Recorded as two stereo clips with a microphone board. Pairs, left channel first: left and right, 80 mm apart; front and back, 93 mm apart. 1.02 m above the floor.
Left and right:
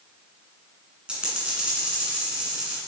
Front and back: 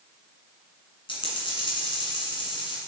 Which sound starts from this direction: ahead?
A dropped coin, at 1.1 s.